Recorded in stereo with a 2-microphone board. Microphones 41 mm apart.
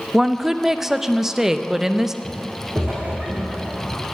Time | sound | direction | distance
0.1 | a woman speaking | 10° right (ahead or behind) | 0.6 m
2.2 | footsteps | 30° right (ahead or behind) | 4.5 m